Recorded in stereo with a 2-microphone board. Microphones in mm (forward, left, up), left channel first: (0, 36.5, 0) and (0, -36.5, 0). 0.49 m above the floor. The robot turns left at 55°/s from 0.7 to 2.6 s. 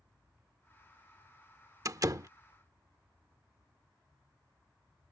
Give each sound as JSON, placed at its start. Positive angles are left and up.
{"t": 1.9, "sound": "a door slam", "side_deg": -50}